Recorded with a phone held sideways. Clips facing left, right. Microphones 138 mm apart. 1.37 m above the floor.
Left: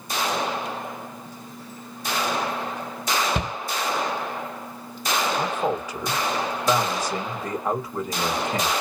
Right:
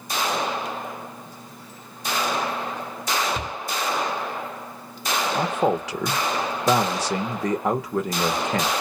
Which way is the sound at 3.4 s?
65° left (ahead or behind).